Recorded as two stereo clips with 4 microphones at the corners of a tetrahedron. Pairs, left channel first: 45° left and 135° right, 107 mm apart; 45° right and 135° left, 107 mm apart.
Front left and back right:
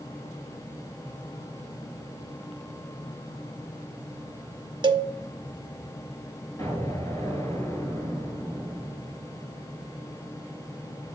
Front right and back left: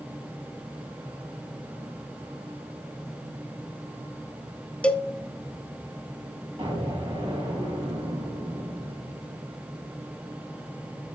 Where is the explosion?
100° left, 4.5 m.